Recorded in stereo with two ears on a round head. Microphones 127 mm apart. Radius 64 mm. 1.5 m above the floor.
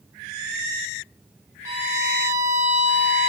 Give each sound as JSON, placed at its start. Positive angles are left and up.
{"t": 1.6, "sound": "a violin", "side_deg": -25, "distance_m": 1.8}